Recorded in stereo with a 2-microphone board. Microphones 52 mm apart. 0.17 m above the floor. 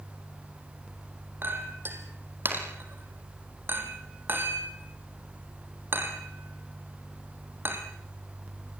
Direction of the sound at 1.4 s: 45° right (ahead or behind).